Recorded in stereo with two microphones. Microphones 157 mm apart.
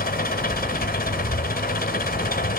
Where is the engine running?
75° left (ahead or behind).